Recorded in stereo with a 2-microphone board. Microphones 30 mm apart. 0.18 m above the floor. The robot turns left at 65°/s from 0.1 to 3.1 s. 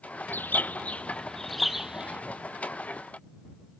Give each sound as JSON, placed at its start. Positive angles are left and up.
{"t": 0.3, "sound": "a bird", "azimuth_deg": 90}